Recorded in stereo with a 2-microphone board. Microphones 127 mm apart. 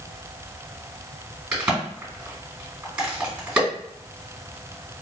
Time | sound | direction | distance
1.5 | a crack | 10° right (ahead or behind) | 2.0 m